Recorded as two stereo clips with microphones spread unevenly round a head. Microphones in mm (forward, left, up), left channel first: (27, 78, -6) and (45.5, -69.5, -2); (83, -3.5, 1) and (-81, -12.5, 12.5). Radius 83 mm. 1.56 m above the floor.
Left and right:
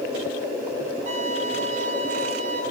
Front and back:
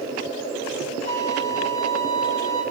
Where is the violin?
40° right, 3.5 m.